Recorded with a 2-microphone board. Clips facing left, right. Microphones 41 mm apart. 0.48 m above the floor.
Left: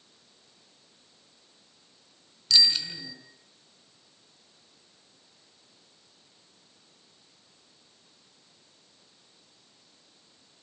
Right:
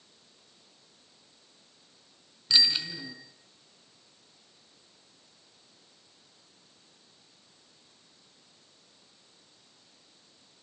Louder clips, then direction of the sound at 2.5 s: Left 2 dB; 20° right (ahead or behind).